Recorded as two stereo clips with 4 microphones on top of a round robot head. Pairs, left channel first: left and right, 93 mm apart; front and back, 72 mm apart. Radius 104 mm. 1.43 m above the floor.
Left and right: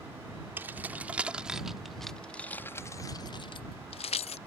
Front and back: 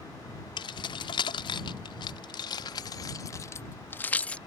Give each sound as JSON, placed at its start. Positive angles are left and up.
{"t": 0.6, "sound": "keys jangling", "azimuth_deg": -15}